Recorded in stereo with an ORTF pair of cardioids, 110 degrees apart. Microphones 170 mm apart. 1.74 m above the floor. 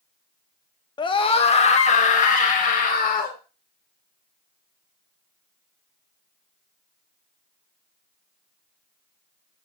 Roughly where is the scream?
Ahead left.